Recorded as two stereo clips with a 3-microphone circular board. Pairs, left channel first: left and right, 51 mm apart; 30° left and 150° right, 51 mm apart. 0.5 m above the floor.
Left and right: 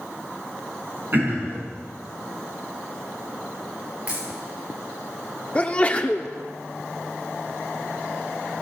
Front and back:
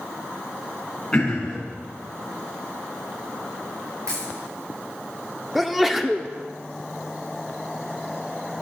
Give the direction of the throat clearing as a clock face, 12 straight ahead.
1 o'clock.